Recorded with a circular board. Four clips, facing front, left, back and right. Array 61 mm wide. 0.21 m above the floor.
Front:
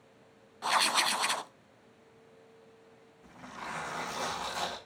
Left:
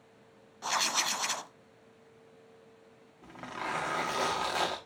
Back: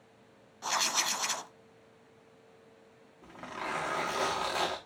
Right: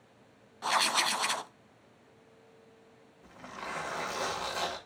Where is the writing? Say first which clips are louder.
Right 3 dB, front 4 dB; 35° right, 0.6 m.